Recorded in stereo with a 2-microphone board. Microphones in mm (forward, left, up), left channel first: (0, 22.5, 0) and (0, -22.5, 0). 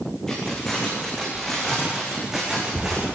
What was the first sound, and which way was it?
Keys jangling, 10° left (ahead or behind).